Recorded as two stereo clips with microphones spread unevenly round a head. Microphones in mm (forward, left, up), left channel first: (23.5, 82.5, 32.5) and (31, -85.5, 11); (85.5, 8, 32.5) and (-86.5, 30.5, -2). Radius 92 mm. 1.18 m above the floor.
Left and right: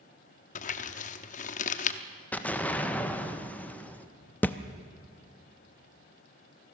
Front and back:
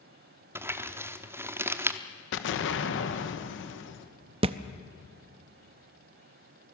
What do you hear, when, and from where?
0.6 s crumpling: 90° left, 0.8 m
2.3 s an explosion: 10° left, 1.5 m
4.4 s a thud: 135° left, 0.5 m